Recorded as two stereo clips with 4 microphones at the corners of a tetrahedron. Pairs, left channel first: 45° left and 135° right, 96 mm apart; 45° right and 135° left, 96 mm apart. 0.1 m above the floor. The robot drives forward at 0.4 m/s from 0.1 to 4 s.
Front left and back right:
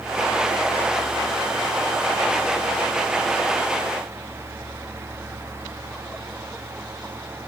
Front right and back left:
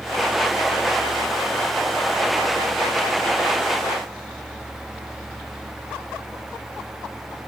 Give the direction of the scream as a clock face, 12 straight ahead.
No scream in this recording.